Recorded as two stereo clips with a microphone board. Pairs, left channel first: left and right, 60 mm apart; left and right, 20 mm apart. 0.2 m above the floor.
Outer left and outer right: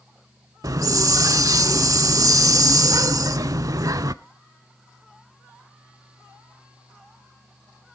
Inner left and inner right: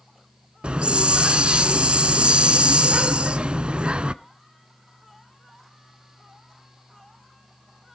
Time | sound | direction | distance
0.6 | a hiss | 65° right (ahead or behind) | 0.5 m